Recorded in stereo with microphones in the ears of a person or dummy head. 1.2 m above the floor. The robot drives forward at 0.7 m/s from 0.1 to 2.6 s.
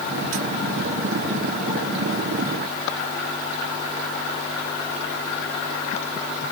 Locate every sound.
Only background noise.